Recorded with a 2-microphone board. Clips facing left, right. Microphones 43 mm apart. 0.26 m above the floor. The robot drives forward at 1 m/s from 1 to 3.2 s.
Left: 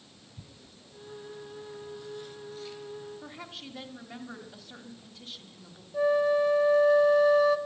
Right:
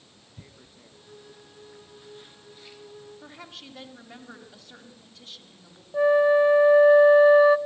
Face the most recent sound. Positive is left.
turn(degrees=-25)  # may be behind; listen again after turning